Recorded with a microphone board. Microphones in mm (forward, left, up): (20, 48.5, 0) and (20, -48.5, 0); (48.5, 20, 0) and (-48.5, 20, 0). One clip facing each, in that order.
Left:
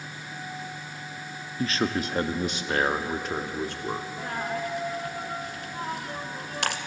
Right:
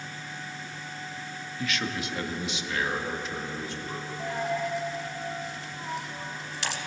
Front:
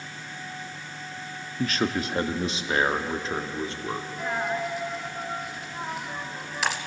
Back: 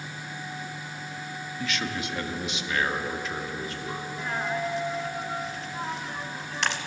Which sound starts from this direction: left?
A dropped coin, at 4.2 s.